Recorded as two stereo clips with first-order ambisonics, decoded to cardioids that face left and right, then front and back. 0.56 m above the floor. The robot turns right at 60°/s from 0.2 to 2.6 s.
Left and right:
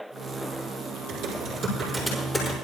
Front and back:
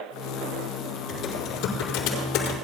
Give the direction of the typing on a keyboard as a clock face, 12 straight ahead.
2 o'clock.